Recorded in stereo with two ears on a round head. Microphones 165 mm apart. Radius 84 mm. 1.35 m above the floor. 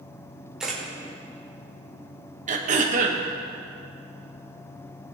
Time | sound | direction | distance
0.6 | a camera shutter | 5° right (ahead or behind) | 2 m
2.5 | throat clearing | 45° right (ahead or behind) | 1.0 m